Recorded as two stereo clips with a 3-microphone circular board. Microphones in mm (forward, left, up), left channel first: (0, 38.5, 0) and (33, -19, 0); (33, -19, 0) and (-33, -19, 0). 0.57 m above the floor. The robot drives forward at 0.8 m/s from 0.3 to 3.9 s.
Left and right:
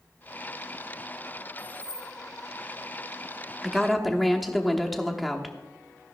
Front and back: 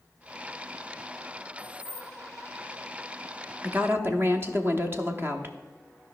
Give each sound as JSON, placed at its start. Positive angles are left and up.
{"t": 1.6, "sound": "keys jangling", "azimuth_deg": -45, "distance_m": 3.5}
{"t": 3.6, "sound": "a woman speaking", "azimuth_deg": -135, "distance_m": 0.8}